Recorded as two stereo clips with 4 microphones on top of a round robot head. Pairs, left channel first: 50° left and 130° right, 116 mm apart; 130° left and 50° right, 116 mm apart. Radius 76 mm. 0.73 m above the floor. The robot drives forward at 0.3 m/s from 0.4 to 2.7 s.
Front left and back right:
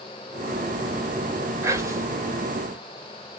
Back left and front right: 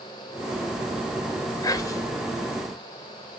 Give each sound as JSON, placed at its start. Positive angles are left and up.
{"t": 1.6, "sound": "whispering", "azimuth_deg": 175, "distance_m": 1.0}